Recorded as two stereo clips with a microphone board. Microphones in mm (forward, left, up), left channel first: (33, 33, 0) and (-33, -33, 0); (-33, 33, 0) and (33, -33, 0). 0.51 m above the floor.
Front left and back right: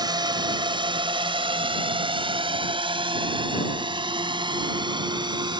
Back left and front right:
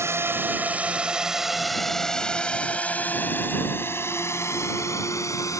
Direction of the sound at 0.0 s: 100° right.